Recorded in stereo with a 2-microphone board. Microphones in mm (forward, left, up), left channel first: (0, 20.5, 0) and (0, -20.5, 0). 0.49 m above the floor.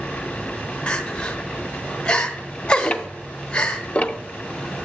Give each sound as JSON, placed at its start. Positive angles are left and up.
{"t": 0.9, "sound": "crying", "side_deg": 35, "distance_m": 1.0}
{"t": 2.8, "sound": "ticking", "side_deg": 35, "distance_m": 0.6}